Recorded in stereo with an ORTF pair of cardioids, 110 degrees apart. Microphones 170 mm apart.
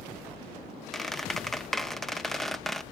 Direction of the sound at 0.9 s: Straight ahead.